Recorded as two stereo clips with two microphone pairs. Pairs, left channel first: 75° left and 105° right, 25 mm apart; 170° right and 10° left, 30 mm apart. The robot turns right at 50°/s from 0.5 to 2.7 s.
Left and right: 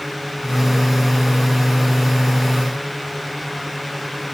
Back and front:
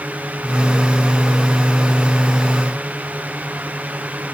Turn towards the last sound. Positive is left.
No sound to turn to.